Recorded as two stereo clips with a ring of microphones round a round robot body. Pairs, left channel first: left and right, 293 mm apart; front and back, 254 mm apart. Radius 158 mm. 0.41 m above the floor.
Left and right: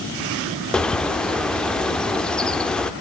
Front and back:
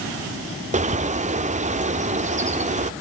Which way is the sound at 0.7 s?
175° left.